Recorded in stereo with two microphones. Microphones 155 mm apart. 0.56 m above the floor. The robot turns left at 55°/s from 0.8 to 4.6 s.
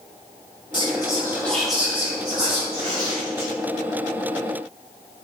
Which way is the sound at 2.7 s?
115° right.